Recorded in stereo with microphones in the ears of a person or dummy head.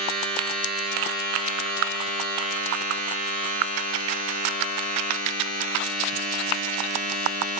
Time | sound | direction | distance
0.0 | a machine running | 45° right (ahead or behind) | 6.5 m